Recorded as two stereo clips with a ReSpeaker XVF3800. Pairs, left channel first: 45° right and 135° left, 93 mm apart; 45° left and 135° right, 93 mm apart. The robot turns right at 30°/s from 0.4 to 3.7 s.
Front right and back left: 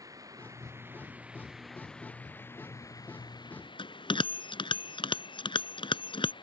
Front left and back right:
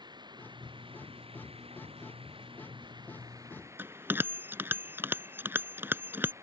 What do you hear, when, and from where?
0.0 s running water: 175° right; by 6.4 s 75° right
3.8 s a bell: 65° right